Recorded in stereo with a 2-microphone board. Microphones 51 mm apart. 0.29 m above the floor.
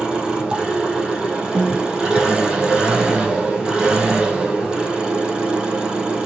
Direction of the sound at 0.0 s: 15° right (ahead or behind).